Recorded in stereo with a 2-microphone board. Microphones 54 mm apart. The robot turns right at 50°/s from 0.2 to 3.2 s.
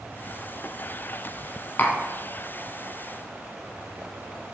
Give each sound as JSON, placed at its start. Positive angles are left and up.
{"t": 1.8, "sound": "tapping", "side_deg": 40, "distance_m": 0.6}